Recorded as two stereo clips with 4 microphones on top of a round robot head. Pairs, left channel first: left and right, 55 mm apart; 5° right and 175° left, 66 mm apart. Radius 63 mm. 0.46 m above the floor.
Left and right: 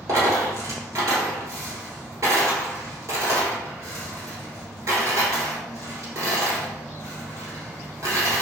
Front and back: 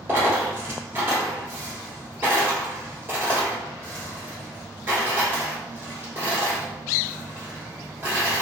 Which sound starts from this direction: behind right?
A dropped coin, at 0.1 s.